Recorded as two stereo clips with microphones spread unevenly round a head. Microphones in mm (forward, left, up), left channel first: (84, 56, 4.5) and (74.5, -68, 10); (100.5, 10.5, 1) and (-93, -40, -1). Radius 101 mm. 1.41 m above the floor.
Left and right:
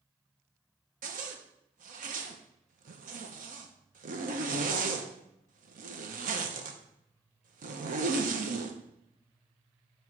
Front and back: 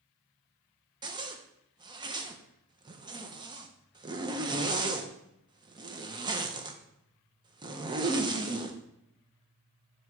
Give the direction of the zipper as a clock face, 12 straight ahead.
3 o'clock.